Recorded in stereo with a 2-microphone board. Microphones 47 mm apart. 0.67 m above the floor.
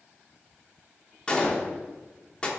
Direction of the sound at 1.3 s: 20° left (ahead or behind).